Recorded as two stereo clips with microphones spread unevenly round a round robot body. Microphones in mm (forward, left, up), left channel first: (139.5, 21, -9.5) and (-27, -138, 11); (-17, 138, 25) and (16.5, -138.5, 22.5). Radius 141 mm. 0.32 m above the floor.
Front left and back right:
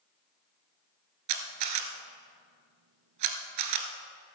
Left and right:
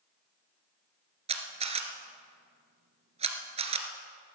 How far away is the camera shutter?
About 1.3 m.